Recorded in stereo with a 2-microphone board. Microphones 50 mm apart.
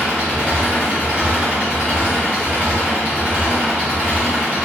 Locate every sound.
0.0 s an engine running: 35° right (ahead or behind), 1.5 m